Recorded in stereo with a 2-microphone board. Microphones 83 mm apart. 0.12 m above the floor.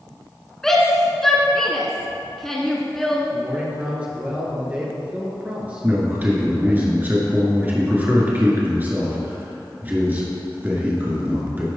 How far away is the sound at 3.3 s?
About 1.8 m.